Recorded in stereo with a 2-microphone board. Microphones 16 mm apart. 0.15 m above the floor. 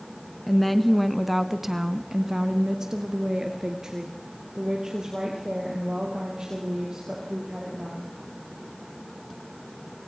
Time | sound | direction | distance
0.5 | a woman speaking | 10° left (ahead or behind) | 1.5 m